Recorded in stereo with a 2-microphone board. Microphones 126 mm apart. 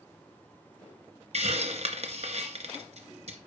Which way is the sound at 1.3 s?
55° right (ahead or behind).